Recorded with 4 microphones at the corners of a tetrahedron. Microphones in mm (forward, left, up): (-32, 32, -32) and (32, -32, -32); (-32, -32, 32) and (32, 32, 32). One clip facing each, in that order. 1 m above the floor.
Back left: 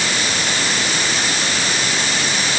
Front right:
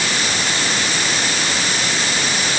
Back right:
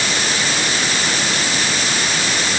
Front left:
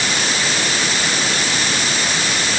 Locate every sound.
Only background noise.